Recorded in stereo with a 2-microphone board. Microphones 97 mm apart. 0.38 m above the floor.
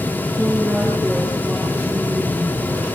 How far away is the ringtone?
I don't hear a ringtone.